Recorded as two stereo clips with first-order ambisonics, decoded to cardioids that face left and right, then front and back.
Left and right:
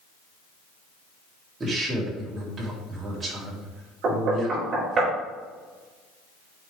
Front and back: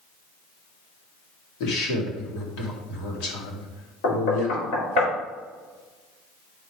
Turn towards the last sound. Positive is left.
turn(degrees=-25)